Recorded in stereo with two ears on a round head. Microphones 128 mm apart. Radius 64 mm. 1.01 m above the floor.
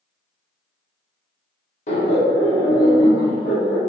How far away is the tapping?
No tapping in this recording.